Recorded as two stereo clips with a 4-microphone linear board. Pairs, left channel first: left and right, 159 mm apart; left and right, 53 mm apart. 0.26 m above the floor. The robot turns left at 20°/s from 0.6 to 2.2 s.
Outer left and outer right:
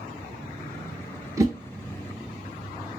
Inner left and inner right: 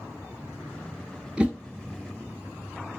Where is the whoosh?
20° right (ahead or behind), 0.6 m; by 1.5 s 25° right (ahead or behind), 0.6 m.